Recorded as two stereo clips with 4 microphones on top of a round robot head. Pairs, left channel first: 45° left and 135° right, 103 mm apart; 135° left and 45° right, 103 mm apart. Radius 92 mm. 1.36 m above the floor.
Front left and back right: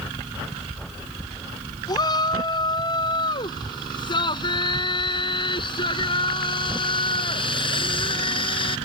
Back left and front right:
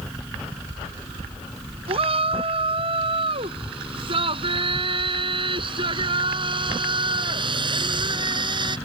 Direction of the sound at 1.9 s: 10° right.